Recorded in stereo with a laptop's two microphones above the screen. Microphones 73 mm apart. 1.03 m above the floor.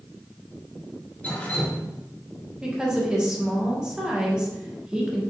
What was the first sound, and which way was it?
Dripping, 20° left (ahead or behind).